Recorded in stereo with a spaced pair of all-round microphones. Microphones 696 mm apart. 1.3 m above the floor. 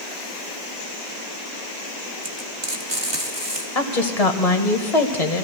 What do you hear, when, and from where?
2.2 s frying: 40° right (ahead or behind), 1.6 m
3.8 s a woman speaking: 60° left (ahead or behind), 1.7 m